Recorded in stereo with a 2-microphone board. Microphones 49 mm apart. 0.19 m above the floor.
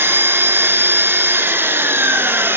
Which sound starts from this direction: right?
An engine running, at 0.0 s.